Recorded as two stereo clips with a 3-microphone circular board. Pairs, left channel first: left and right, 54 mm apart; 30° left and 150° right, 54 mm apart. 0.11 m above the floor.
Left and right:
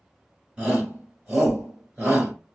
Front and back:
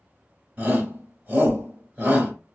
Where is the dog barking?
I don't hear a dog barking.